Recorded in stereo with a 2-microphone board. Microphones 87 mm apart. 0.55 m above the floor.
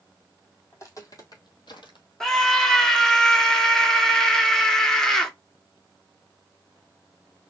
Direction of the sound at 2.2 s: 5° left (ahead or behind).